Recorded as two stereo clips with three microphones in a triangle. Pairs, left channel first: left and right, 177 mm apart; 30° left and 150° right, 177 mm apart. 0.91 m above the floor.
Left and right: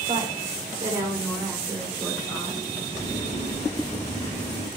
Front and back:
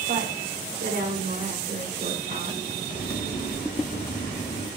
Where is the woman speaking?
150° right, 2.5 m; by 2.6 s 175° right, 5.5 m.